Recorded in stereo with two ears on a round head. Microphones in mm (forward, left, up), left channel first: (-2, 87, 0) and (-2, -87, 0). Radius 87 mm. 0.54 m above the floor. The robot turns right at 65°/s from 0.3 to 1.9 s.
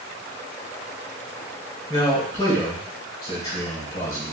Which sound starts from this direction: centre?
A man speaking, at 1.9 s.